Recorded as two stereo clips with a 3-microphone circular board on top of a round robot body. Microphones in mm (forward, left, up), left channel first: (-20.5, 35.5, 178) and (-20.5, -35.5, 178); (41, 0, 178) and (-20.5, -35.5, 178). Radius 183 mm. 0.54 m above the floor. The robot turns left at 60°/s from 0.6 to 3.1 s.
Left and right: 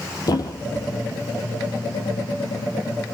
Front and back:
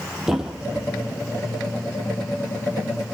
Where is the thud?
125° left, 2 m; by 0.9 s 110° left, 2 m.